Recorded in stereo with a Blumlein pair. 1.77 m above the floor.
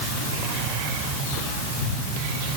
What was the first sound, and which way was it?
Only background noise.